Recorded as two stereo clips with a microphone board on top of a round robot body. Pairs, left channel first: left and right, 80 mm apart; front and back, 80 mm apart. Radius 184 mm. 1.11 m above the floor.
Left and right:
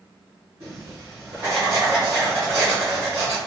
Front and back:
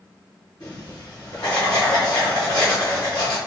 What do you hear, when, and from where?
0.6 s writing: 45° right, 0.9 m